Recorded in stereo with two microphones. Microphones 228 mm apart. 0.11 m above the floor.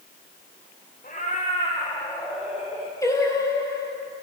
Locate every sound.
1.0 s a cat meowing: 35° left (ahead or behind), 3.5 m; by 2.9 s 25° right (ahead or behind), 1.8 m
3.0 s singing: 15° left (ahead or behind), 1.3 m